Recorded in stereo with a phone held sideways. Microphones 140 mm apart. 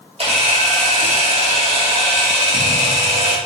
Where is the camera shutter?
45° right (ahead or behind), 2 m.